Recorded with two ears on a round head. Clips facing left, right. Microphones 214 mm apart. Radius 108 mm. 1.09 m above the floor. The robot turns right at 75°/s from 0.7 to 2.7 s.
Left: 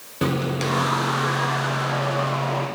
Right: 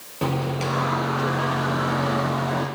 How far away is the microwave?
About 0.8 m.